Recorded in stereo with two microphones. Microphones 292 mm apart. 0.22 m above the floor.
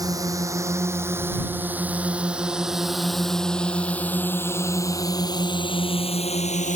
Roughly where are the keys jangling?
No keys jangling in this recording.